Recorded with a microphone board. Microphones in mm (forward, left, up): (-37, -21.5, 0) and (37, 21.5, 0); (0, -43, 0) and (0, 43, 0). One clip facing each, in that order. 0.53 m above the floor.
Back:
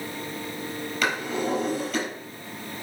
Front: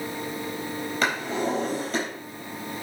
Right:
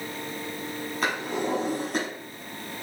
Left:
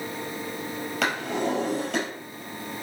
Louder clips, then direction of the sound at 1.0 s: Even, left 1 dB; 85° left.